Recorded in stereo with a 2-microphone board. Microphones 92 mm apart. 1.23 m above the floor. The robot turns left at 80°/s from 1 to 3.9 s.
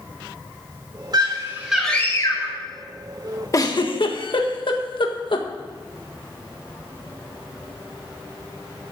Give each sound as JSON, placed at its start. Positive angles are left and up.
{"t": 1.1, "sound": "a scream", "azimuth_deg": -130, "distance_m": 6.0}
{"t": 3.5, "sound": "a giggle", "side_deg": 35, "distance_m": 1.4}